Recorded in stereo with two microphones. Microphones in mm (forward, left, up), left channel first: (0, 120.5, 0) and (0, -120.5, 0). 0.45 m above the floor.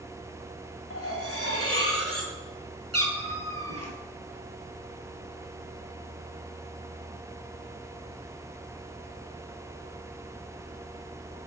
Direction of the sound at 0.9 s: 65° left (ahead or behind).